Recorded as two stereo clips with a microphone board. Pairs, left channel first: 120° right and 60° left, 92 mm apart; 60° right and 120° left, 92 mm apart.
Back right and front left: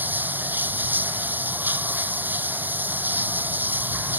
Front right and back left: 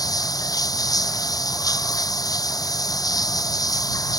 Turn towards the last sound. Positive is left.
turn(degrees=-10)